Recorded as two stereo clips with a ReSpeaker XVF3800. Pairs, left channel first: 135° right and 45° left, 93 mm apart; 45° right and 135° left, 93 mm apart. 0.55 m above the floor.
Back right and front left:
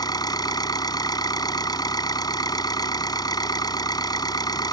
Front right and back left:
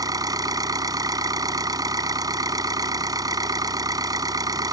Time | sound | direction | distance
0.0 | an engine running | straight behind | ?